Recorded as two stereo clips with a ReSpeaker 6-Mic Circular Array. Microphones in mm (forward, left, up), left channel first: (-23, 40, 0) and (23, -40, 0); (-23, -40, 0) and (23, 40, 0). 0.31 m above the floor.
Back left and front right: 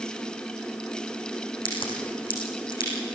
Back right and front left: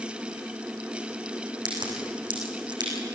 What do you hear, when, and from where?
1.6 s a crack: 95° left, 5.5 m